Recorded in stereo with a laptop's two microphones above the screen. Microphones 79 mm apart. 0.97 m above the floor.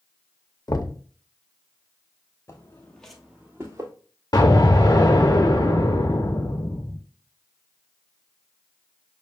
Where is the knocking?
50° left (ahead or behind), 0.7 m.